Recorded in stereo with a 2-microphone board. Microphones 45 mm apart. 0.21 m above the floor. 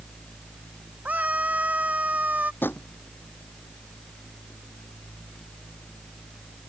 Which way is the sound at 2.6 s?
55° left (ahead or behind).